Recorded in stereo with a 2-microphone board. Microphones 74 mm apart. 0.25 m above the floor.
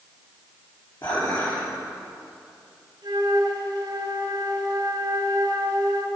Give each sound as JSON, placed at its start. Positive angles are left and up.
{"t": 1.0, "sound": "dishes clattering", "side_deg": 50, "distance_m": 3.5}
{"t": 3.0, "sound": "a flute", "side_deg": -65, "distance_m": 2.5}